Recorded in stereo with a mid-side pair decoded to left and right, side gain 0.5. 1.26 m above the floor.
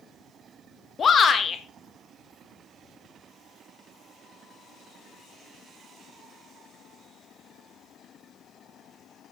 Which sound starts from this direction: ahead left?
A shout, at 1.0 s.